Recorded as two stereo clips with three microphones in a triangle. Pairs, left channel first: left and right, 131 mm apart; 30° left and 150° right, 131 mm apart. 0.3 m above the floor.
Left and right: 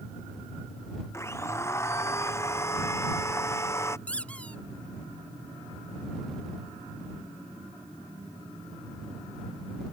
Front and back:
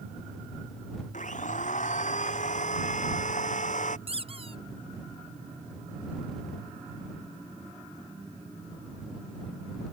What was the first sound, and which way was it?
A blender, 20° left.